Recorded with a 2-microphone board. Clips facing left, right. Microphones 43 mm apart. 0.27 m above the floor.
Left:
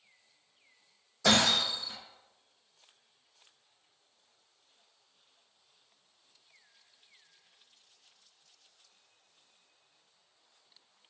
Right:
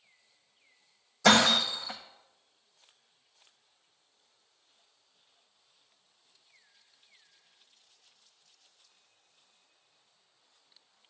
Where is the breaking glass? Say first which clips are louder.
Right 4 dB; 80° right, 1.1 m.